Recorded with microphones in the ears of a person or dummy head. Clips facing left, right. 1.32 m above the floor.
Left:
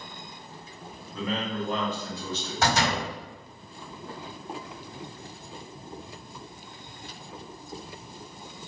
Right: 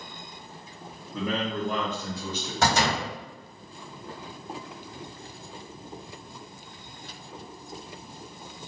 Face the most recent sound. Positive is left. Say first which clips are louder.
# right 1 dB
turn(degrees=-70)  # may be behind; listen again after turning